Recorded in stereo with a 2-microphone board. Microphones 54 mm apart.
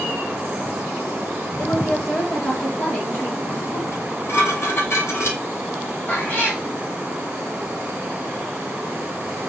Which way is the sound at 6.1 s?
35° left (ahead or behind).